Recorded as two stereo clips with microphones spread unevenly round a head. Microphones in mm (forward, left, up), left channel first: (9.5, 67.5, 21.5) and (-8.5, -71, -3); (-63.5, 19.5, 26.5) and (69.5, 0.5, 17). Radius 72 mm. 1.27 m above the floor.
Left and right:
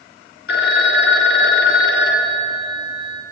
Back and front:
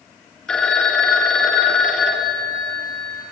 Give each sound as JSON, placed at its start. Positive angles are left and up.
{"t": 0.5, "sound": "a phone ringing", "azimuth_deg": 90, "distance_m": 2.0}